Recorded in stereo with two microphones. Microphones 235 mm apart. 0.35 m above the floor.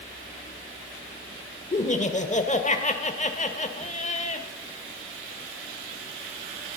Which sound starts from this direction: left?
Laughter, at 1.7 s.